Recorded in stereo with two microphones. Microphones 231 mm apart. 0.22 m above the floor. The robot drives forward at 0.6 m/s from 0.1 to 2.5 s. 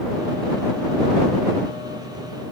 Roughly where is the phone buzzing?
I don't hear a phone buzzing.